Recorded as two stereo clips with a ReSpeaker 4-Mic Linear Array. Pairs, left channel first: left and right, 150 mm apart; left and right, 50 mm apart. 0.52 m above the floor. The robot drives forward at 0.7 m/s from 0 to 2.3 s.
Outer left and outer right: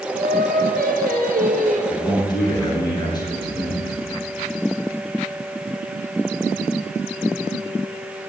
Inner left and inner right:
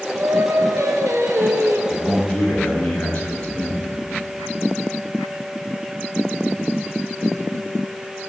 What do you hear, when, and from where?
0.1 s singing: 70° right (ahead or behind), 1.5 m; by 1.8 s 60° right (ahead or behind), 1.7 m
1.9 s a man speaking: 30° left (ahead or behind), 5.5 m